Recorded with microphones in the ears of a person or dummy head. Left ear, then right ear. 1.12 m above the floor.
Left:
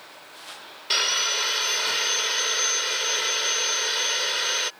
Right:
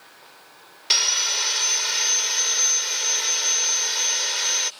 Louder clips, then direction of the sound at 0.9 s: Right 2 dB; 25° right (ahead or behind).